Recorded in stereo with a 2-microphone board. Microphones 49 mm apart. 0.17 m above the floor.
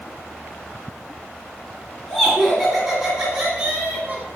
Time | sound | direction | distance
2.1 | laughter | 10° left (ahead or behind) | 1.4 m